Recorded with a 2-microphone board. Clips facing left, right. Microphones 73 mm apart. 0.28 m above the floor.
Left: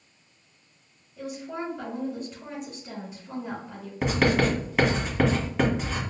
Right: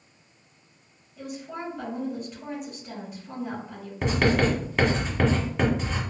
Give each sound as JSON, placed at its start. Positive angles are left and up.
{"t": 1.2, "sound": "a woman speaking", "side_deg": -5, "distance_m": 1.8}
{"t": 4.0, "sound": "writing", "side_deg": 5, "distance_m": 1.1}